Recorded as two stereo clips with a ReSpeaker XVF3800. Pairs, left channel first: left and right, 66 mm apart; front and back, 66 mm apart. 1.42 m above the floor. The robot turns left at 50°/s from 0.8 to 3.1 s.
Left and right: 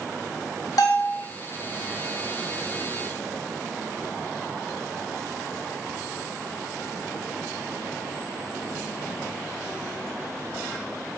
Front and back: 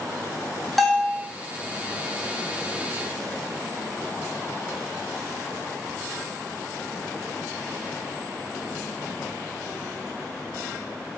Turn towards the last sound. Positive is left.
turn(degrees=-25)